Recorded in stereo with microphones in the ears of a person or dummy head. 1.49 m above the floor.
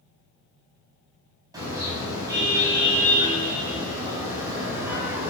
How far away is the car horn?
About 6.5 m.